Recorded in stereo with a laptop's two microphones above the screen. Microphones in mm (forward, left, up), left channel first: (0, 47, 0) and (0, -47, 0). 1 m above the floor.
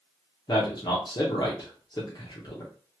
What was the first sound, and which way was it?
A man speaking, 50° left (ahead or behind).